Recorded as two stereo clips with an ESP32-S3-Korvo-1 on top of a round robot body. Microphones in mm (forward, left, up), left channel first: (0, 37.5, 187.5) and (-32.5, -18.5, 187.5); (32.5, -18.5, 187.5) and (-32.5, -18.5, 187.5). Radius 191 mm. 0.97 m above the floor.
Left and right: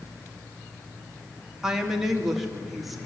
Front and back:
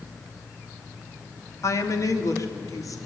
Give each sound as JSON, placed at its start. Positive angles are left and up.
{"t": 1.6, "sound": "a woman speaking", "azimuth_deg": -40, "distance_m": 2.5}